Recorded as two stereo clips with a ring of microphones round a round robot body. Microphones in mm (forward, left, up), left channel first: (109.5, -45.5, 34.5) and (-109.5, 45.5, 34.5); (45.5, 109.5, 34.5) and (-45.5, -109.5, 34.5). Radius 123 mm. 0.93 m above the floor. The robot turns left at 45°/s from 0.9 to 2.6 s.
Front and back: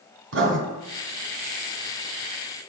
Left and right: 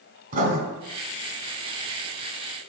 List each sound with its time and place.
0.3 s writing: 170° right, 1.5 m